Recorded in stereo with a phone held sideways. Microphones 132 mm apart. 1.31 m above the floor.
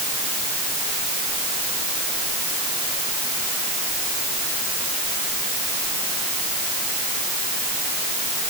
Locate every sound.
Only background noise.